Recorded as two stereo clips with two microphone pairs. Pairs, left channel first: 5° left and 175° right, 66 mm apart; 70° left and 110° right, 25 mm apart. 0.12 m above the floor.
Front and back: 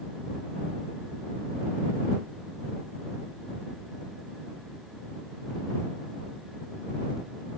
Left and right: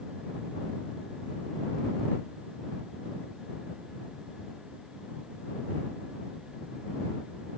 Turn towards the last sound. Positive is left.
No sound to turn to.